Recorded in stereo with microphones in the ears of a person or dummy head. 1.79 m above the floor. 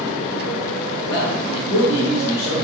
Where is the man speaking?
60° left (ahead or behind), 1.1 m.